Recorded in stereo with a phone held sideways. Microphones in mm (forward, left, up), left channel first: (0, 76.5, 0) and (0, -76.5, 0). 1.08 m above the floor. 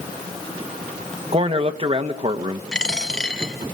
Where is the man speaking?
40° right (ahead or behind), 1.6 m.